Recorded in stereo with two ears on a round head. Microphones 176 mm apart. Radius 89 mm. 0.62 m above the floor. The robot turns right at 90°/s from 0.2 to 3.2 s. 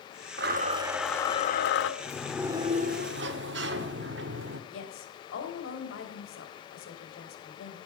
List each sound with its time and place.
0.4 s a blender: 60° right, 1.1 m; by 1.9 s 75° left, 1.1 m
2.0 s a sliding door: 150° left, 1.3 m; by 4.6 s 100° right, 1.3 m
4.7 s a woman speaking: 70° left (ahead or behind), 3.5 m